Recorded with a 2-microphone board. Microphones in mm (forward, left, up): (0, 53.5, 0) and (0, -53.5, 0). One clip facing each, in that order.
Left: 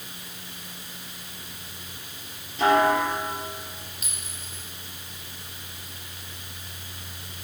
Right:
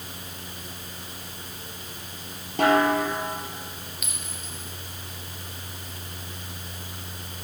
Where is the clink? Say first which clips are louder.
Right 3 dB; 35° left (ahead or behind), 1.9 m.